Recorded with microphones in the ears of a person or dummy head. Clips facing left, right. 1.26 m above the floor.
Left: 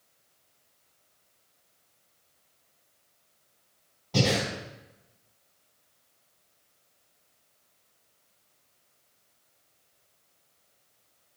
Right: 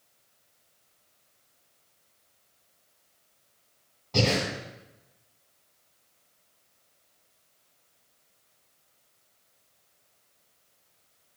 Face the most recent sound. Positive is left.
turn(degrees=5)  # may be behind; listen again after turning